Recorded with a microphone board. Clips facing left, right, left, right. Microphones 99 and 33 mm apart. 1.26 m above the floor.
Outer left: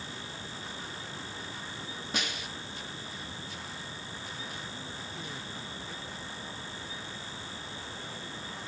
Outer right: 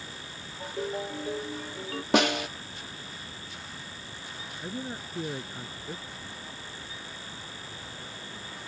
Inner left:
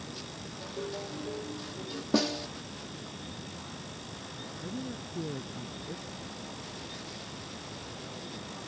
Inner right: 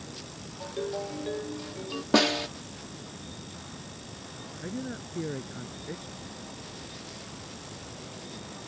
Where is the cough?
I don't hear a cough.